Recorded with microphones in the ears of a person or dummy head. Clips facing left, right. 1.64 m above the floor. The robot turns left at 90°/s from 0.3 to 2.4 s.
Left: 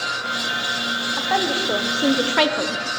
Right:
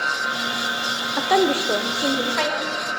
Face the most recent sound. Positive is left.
turn(degrees=130)